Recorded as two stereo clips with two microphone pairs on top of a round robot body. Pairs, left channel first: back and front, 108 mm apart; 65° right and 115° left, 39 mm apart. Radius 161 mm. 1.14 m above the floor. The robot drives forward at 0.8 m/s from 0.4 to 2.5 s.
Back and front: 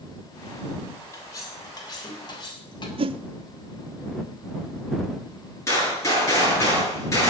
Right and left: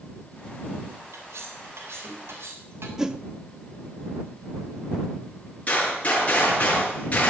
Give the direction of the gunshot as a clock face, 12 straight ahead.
4 o'clock.